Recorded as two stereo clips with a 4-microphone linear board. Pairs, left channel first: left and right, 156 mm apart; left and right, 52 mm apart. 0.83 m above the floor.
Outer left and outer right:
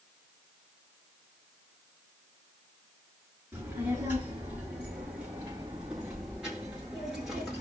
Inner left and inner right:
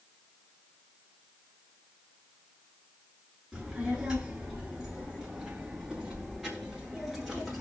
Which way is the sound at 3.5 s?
15° right (ahead or behind).